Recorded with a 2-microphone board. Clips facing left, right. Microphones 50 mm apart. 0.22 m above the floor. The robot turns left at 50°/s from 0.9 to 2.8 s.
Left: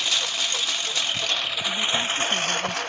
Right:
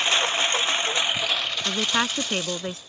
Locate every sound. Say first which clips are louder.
0.0 s a lawn mower: right 4 dB; 35° right (ahead or behind); by 2.9 s 70° left (ahead or behind)
1.6 s a woman speaking: right 2 dB; 80° right; by 2.8 s 135° right